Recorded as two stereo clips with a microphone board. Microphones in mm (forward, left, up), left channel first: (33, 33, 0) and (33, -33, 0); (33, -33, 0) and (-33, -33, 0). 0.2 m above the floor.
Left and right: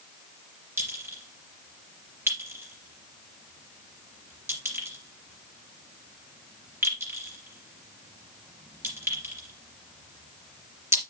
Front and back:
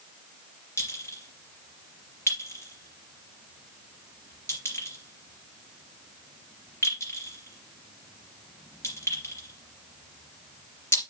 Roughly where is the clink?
Ahead right.